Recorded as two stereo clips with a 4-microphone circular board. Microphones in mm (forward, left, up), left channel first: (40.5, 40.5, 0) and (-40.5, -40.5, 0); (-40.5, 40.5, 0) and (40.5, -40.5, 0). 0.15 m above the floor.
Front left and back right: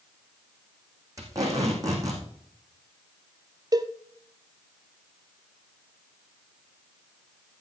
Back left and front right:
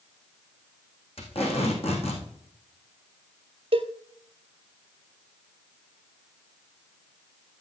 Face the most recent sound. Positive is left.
turn(degrees=-80)